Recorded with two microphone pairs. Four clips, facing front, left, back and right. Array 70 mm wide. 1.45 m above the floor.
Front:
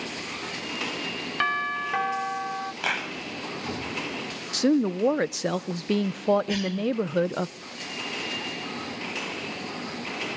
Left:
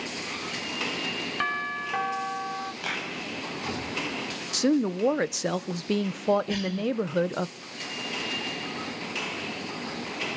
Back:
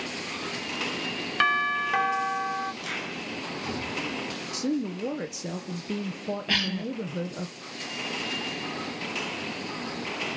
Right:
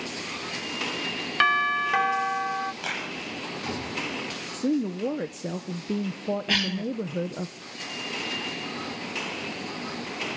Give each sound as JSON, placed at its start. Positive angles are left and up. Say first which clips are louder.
{"t": 1.4, "sound": "a doorbell", "louder": "right 9 dB, back 2 dB", "azimuth_deg": -105, "distance_m": 0.6}
{"t": 2.8, "sound": "a clap", "louder": "even, front 5 dB", "azimuth_deg": 0, "distance_m": 6.5}
{"t": 4.5, "sound": "a woman speaking", "louder": "left 2 dB, front 7 dB", "azimuth_deg": 50, "distance_m": 1.1}
{"t": 6.5, "sound": "a cough", "louder": "right 1 dB, front 2 dB", "azimuth_deg": -120, "distance_m": 1.2}